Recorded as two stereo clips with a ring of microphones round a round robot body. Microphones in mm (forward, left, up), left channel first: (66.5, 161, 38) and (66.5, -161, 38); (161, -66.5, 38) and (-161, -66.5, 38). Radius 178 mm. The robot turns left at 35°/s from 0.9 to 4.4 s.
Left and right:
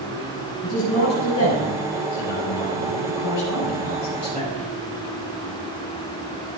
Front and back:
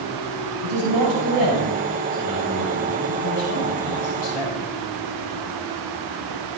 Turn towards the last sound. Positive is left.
turn(degrees=25)